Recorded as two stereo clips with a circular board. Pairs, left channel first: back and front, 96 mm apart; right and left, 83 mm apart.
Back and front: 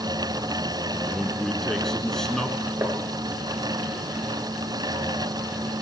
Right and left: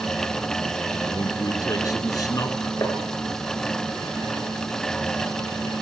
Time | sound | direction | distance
1.1 | a man speaking | 95° right | 1.8 m
2.8 | tapping | 50° right | 2.5 m